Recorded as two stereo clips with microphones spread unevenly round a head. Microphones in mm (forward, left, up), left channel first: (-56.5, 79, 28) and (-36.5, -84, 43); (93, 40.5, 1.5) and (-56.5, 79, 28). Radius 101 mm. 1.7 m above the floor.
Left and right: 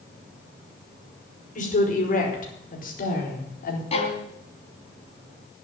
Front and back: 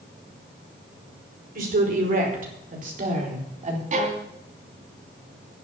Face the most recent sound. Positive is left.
turn(degrees=150)